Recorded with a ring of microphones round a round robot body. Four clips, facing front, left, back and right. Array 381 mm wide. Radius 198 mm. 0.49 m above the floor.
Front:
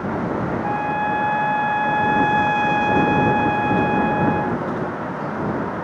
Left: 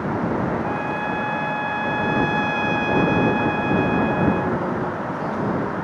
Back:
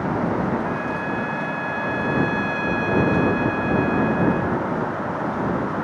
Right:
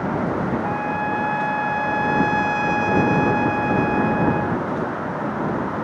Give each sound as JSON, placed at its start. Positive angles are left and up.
{"t": 0.6, "sound": "a trumpet", "azimuth_deg": -15}